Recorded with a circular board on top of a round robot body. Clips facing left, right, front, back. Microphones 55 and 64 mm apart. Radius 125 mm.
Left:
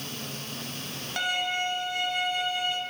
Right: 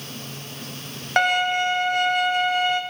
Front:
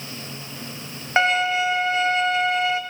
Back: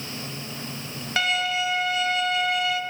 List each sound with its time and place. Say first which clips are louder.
1.2 s a violin: right 9 dB, front 6 dB; 60° right, 2.5 m